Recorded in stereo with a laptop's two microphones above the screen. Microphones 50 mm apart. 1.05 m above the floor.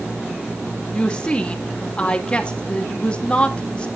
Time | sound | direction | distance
0.9 | a woman speaking | 25° left (ahead or behind) | 2 m